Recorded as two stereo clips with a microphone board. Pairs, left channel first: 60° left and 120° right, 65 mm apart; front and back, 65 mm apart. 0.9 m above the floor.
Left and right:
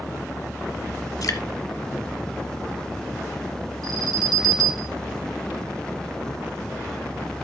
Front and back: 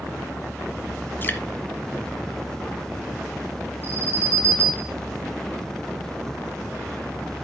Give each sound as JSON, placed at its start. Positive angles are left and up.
{"t": 1.2, "sound": "dripping", "azimuth_deg": 50, "distance_m": 1.4}
{"t": 3.8, "sound": "an alarm", "azimuth_deg": -130, "distance_m": 2.0}